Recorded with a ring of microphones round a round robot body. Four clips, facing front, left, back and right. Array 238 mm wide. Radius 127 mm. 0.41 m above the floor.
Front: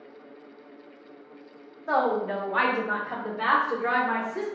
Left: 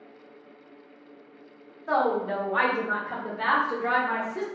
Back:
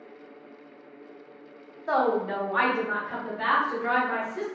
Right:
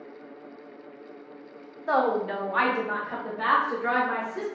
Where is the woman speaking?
115° right, 0.8 m; by 4.5 s 40° left, 1.2 m.